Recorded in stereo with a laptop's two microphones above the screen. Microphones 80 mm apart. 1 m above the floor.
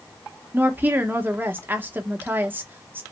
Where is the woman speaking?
25° right (ahead or behind), 0.8 m.